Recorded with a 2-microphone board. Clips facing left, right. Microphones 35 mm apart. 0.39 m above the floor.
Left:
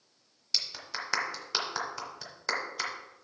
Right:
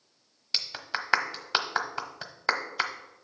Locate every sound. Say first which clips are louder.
0.5 s a clap: right 3 dB; 35° right (ahead or behind), 1.0 m